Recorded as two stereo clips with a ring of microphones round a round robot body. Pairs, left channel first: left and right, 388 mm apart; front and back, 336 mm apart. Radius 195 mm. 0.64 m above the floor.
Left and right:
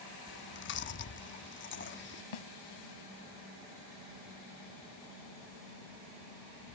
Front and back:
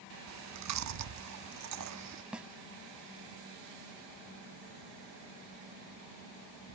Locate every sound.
0.3 s chewing: 150° left
2.3 s a snare drum: 95° left